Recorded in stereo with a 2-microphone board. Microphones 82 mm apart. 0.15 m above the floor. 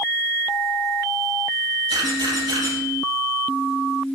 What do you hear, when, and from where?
1.9 s a camera shutter: 70° right (ahead or behind), 5 m